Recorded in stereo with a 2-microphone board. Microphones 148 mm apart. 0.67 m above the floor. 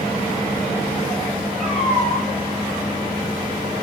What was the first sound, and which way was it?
A cat meowing, 5° left (ahead or behind).